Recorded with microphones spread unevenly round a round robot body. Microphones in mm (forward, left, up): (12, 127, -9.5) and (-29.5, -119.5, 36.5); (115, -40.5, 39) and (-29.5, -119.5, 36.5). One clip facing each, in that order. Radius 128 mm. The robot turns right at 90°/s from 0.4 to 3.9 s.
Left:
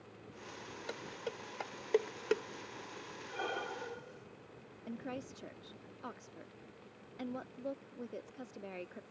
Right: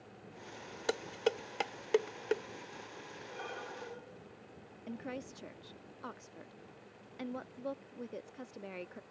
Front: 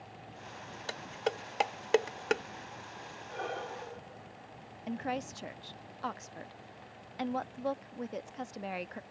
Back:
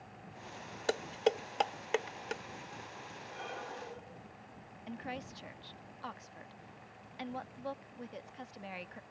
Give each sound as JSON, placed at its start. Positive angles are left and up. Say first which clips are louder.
{"t": 0.9, "sound": "dishes clattering", "louder": "right 11 dB, back 4 dB", "azimuth_deg": -120}
{"t": 3.3, "sound": "breathing", "louder": "left 5 dB, front 6 dB", "azimuth_deg": 65}
{"t": 4.9, "sound": "a woman speaking", "louder": "even, front 7 dB", "azimuth_deg": -5}